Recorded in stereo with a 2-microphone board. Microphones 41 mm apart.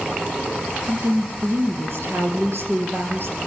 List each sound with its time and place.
0.8 s a woman speaking: 70° right (ahead or behind), 3 m